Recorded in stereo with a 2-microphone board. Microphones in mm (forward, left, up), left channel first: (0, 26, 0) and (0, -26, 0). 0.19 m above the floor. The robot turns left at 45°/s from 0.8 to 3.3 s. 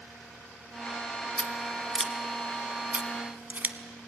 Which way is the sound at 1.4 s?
20° left (ahead or behind).